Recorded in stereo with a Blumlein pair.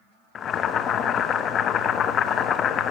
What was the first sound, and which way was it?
Boiling, 25° left.